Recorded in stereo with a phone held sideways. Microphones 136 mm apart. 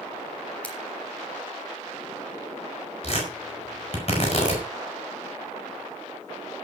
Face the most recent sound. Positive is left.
turn(degrees=45)  # may be behind; listen again after turning